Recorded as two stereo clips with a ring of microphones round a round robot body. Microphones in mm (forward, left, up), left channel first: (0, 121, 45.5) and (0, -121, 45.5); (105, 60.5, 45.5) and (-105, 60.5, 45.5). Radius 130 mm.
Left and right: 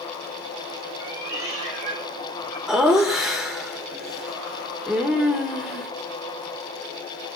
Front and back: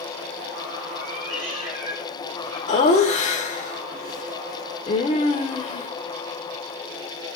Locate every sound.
1.0 s a cat meowing: 165° right, 3.5 m; by 2.6 s 140° right, 5 m
2.7 s laughter: 5° right, 1.4 m